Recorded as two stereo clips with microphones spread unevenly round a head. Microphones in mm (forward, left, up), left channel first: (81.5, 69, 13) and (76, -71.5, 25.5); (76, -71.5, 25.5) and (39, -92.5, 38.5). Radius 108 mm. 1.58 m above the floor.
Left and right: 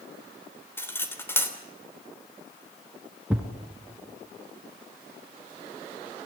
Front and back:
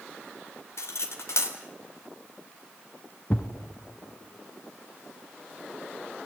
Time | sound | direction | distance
0.8 | cutlery clinking | 15° left | 3 m
3.3 | a thud | 25° right | 1.7 m